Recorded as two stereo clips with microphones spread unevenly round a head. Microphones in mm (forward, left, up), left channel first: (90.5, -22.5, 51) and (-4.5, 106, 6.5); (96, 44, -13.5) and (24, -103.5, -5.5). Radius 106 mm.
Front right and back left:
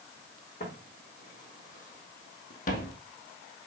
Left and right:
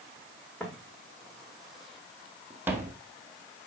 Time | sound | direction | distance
0.6 | footsteps | 20° right | 4 m